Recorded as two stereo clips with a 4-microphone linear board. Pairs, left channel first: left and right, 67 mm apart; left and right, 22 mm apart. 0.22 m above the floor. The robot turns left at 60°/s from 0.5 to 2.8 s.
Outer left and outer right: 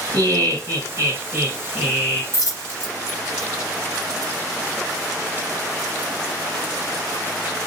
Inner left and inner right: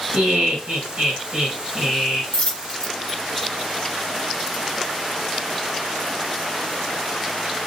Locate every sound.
0.1 s laughter: 95° right, 1.9 m; by 2.2 s 160° left, 1.9 m
2.3 s a dropped coin: 55° left (ahead or behind), 1.1 m; by 3.5 s 40° left (ahead or behind), 1.1 m